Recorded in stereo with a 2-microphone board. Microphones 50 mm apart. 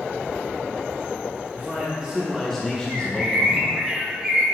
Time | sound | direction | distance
1.5 | a man speaking | 35° right (ahead or behind) | 1.0 m
2.9 | a bird | 25° right (ahead or behind) | 1.4 m